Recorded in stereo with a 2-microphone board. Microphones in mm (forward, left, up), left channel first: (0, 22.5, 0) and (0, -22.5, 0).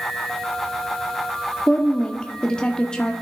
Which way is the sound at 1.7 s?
20° left (ahead or behind).